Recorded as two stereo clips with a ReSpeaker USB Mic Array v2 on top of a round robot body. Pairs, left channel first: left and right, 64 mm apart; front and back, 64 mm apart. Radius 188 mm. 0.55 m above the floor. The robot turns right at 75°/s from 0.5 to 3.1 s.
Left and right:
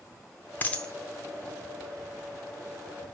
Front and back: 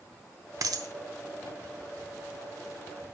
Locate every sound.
0.6 s a dropped coin: 150° left, 0.7 m; by 0.9 s 175° left, 0.7 m